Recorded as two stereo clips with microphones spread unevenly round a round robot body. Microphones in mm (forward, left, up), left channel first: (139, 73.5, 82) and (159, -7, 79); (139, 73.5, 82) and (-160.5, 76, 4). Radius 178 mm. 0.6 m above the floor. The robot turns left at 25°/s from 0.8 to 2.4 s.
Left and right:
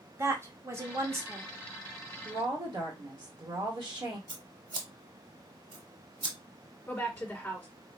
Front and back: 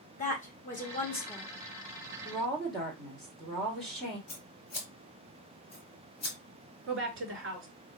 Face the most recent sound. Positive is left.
turn(degrees=180)